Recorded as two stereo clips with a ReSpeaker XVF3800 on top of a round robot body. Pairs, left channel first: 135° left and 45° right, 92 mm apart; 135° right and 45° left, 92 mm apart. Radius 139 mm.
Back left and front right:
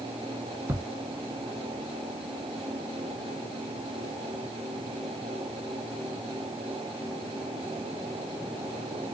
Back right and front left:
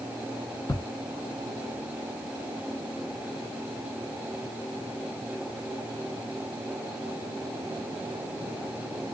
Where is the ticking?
95° right, 1.2 m.